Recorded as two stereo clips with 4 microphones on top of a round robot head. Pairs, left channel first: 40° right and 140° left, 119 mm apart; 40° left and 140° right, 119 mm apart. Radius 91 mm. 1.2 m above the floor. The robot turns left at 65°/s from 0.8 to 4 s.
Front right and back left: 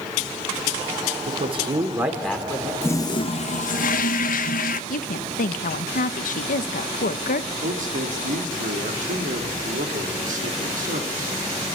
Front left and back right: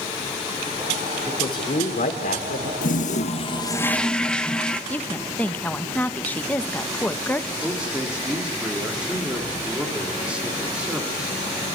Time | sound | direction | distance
1.3 | a man speaking | 110° left | 3 m
2.8 | a toilet flushing | 35° left | 0.9 m
4.9 | a woman speaking | 35° right | 1.1 m
7.6 | a man speaking | 140° left | 3 m